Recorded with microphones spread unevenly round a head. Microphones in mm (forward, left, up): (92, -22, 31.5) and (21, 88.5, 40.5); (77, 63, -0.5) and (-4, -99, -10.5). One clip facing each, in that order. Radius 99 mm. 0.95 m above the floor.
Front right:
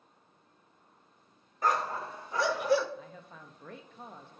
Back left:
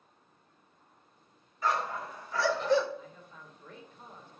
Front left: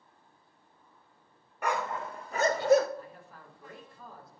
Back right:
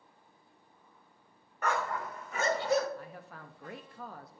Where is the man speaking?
95° right, 0.9 m.